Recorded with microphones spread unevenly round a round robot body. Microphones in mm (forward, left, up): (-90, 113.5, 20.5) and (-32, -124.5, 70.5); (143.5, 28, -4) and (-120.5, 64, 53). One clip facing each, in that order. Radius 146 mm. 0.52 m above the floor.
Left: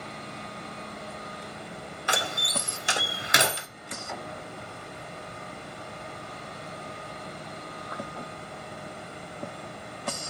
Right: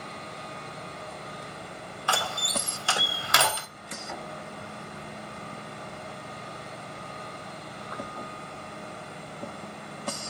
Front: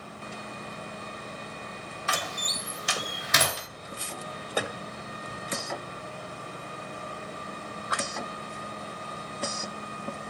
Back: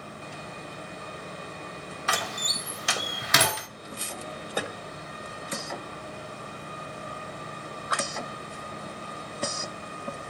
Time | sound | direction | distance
2.1 | a door slam | 165° left | 1.3 m